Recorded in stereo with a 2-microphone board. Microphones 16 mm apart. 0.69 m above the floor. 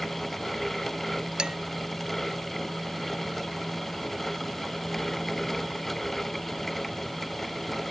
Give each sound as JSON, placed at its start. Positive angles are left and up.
{"t": 1.4, "sound": "dishes clattering", "side_deg": -65}